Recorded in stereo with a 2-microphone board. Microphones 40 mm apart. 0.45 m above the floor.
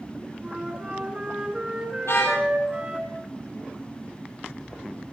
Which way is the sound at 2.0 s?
65° left (ahead or behind).